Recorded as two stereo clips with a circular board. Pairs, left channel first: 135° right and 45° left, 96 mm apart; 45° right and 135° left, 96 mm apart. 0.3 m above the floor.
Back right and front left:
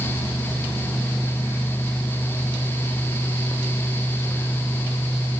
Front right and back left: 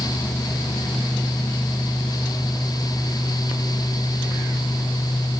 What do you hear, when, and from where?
Only background noise.